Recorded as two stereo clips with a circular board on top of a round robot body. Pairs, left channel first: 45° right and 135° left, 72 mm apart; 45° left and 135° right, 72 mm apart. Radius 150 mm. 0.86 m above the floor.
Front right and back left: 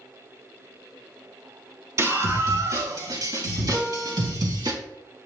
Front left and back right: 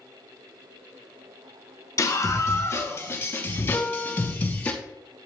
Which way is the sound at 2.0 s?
90° left.